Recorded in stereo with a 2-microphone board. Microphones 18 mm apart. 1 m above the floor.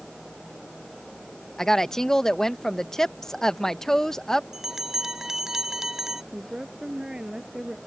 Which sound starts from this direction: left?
A woman speaking, at 1.6 s.